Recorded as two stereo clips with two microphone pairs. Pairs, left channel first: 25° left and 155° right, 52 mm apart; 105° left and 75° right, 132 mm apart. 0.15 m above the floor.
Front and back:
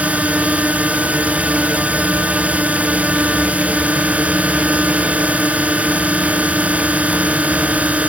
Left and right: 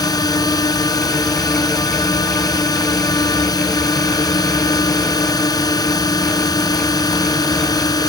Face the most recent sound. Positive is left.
turn(degrees=150)